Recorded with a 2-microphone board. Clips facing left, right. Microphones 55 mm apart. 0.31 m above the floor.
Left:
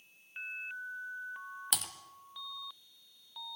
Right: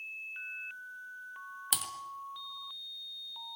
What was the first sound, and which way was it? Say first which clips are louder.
Typing on a keyboard: right 1 dB; centre (ahead or behind).